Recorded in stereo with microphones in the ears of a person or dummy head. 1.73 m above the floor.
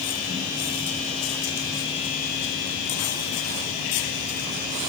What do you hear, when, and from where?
Only background noise.